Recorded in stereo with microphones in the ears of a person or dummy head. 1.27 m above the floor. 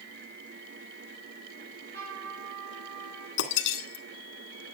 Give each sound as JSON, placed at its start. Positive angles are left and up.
{"t": 1.6, "sound": "a trumpet", "side_deg": -55, "distance_m": 7.0}
{"t": 3.4, "sound": "breaking glass", "side_deg": 70, "distance_m": 2.0}